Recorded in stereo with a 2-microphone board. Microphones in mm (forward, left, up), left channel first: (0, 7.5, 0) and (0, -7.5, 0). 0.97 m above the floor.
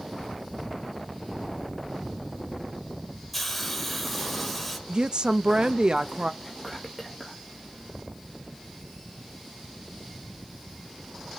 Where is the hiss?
5° left (ahead or behind), 1.5 m.